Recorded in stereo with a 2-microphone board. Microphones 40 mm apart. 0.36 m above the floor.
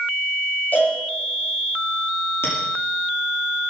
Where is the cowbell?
50° left (ahead or behind), 9.5 m.